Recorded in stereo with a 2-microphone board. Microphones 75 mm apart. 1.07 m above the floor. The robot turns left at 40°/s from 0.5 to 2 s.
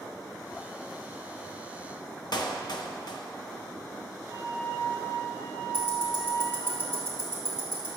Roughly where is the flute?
Left.